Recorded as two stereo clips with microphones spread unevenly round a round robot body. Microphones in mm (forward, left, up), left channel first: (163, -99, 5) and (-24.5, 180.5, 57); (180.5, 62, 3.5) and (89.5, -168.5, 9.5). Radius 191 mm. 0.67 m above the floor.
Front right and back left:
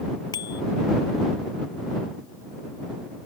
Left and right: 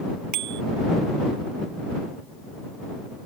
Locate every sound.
0.3 s a bicycle bell: 135° right